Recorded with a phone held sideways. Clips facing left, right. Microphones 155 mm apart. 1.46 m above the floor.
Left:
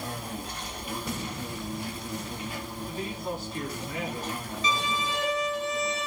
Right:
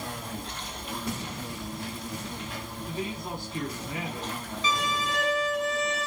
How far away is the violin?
About 4 m.